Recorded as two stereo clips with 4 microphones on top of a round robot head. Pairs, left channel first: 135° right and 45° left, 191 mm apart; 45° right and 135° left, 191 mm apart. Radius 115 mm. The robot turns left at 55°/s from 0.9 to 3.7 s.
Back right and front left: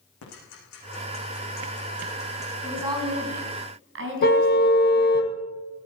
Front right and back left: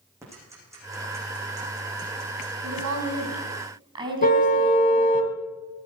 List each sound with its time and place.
0.2 s ticking: 145° right, 9.5 m; by 2.5 s 125° left, 9.5 m
2.6 s a woman speaking: 130° left, 5 m; by 5.2 s 70° left, 5 m
4.2 s a car horn: 95° right, 2 m